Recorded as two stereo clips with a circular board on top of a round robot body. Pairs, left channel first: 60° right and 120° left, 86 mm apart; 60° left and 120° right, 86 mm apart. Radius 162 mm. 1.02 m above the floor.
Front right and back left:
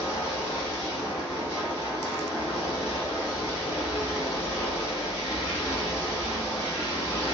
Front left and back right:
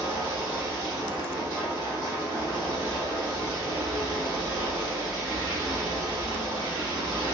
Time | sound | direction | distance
0.0 | running water | 165° right | 1.5 m